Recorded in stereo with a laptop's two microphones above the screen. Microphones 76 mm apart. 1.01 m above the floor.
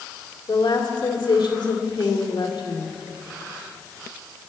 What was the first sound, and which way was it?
A woman speaking, 80° left.